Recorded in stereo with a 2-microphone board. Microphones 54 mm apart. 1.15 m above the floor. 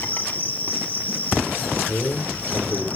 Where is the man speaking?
50° left (ahead or behind), 4 m.